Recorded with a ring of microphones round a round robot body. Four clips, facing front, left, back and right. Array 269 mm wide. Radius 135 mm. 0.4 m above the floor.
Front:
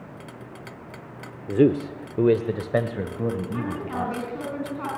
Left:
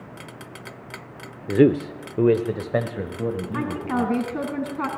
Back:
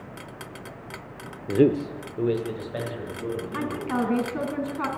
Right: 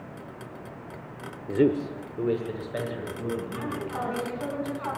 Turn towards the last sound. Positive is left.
turn(degrees=110)